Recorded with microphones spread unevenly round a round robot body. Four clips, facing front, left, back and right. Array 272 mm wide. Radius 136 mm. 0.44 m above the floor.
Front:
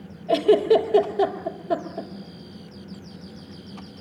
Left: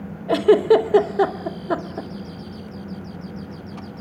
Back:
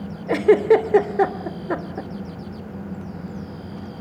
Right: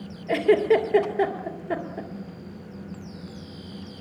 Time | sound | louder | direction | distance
0.3 | a giggle | left 5 dB, back 2 dB | 140° left | 1.7 m